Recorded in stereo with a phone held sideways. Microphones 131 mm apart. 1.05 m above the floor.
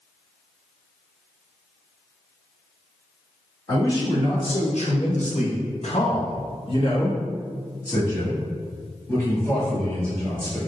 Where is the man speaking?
35° left (ahead or behind), 1.1 m; by 10.6 s 15° left (ahead or behind), 3 m.